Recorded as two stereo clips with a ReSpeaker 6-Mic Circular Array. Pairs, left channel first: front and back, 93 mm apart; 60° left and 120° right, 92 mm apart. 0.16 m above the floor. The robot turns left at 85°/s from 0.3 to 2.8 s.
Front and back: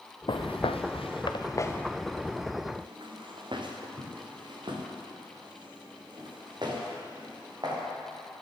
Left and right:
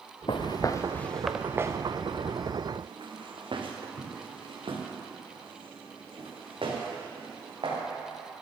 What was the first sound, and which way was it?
Footsteps, 30° left.